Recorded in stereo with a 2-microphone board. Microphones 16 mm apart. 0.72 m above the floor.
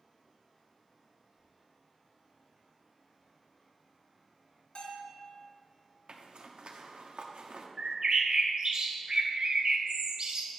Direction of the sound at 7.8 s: 45° right (ahead or behind).